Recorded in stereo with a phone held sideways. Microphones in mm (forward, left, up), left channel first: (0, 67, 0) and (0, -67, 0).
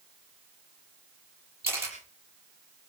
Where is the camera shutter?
20° right (ahead or behind), 7 m.